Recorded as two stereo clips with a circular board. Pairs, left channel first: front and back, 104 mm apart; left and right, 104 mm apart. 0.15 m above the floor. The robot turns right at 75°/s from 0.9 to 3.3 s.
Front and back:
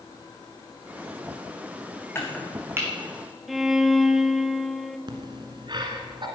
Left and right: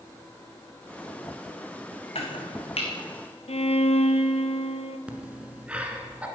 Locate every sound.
2.1 s chopping: 65° left, 2 m; by 2.9 s 120° left, 2 m
3.5 s a violin: 90° left, 0.7 m
5.1 s breathing: 165° right, 1.5 m